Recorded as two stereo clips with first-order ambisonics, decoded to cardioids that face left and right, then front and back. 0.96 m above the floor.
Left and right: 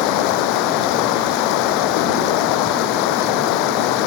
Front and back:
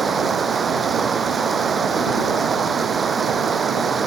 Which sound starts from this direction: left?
Running water, at 0.0 s.